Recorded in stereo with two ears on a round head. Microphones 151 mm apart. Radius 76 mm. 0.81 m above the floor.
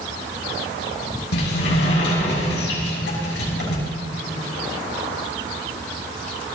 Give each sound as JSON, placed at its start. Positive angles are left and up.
{"t": 1.3, "sound": "a sliding door", "side_deg": 75, "distance_m": 6.5}